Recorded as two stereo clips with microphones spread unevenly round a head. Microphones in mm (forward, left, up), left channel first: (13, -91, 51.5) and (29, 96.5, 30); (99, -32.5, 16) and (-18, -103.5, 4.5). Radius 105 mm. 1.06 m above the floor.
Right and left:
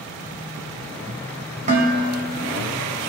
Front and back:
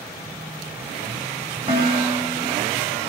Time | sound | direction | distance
1.7 | dishes clattering | 145° left | 4 m